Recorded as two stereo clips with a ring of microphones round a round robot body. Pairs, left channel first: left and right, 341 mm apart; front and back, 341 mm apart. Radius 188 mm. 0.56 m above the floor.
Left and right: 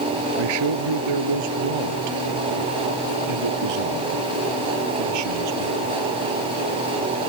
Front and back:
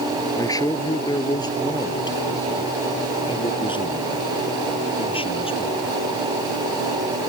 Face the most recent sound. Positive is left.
turn(degrees=-75)